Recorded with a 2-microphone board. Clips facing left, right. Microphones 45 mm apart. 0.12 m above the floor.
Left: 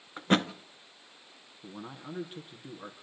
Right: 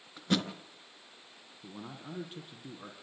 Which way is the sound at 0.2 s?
40° left (ahead or behind).